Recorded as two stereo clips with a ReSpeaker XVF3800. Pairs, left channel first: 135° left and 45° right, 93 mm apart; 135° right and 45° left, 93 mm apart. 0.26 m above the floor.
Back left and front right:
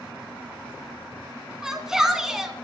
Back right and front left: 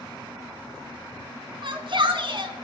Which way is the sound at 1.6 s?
35° left.